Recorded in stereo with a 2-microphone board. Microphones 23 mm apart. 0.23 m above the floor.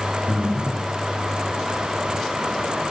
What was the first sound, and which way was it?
Breathing, 75° right (ahead or behind).